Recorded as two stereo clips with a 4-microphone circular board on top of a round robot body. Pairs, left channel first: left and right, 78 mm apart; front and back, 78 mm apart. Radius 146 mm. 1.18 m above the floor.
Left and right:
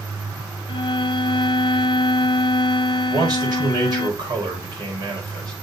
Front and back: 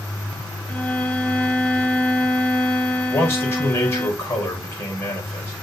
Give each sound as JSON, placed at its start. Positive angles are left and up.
{"t": 0.7, "sound": "a violin", "azimuth_deg": 75, "distance_m": 0.7}
{"t": 3.1, "sound": "a man speaking", "azimuth_deg": -60, "distance_m": 5.0}